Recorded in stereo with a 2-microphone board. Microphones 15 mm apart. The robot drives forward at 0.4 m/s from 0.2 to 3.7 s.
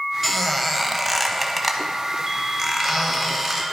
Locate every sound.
0.2 s a squeak: 10° left (ahead or behind), 0.7 m; by 3.6 s 5° left (ahead or behind), 2 m